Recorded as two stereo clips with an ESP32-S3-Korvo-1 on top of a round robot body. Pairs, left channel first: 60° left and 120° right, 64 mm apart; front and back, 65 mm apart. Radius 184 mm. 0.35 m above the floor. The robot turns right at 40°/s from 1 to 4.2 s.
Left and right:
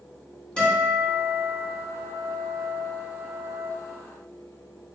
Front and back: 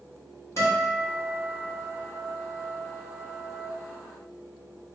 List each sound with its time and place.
0.6 s a guitar: 5° right, 1.9 m; by 3.7 s 100° left, 1.9 m